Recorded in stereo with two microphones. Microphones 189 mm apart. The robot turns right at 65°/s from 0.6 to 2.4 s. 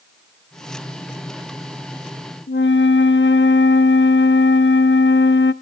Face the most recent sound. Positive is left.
turn(degrees=80)